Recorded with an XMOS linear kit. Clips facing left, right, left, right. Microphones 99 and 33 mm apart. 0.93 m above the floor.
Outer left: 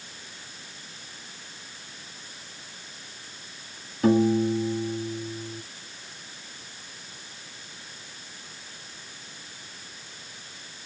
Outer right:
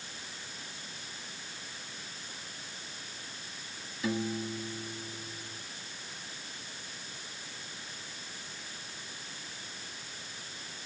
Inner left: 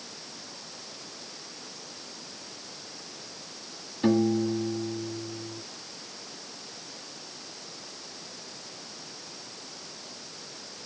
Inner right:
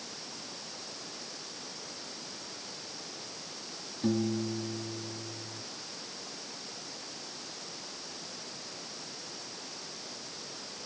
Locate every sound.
4.0 s a piano: 50° left (ahead or behind)